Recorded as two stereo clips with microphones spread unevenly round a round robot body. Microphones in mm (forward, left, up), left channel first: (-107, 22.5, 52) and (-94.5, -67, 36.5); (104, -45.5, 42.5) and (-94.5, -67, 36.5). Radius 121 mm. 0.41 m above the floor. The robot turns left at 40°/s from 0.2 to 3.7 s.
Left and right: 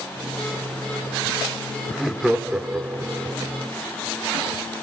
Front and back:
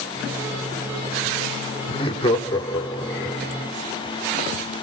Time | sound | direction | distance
1.9 | laughter | 10° right | 1.0 m